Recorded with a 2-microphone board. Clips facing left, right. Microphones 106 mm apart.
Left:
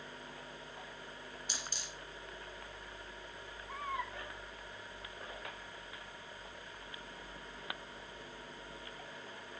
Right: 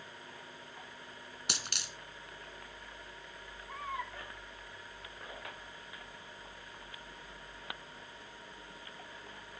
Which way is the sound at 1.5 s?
80° right.